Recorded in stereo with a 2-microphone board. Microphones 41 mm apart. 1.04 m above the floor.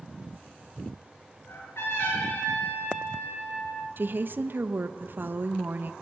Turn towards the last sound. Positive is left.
turn(degrees=-55)  # may be behind; listen again after turning